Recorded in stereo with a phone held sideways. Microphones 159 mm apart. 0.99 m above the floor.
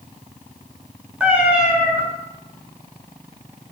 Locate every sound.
1.2 s a cat meowing: 5° right (ahead or behind), 1.6 m